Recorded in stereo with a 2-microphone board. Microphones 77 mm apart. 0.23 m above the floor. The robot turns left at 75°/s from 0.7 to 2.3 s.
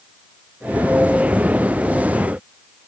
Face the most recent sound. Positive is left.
No sound to turn to.